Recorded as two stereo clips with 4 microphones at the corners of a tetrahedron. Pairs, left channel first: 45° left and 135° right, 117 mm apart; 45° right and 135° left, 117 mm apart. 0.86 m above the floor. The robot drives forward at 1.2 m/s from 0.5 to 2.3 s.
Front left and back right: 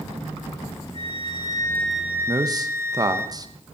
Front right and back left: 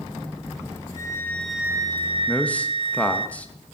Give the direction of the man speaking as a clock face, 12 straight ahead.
4 o'clock.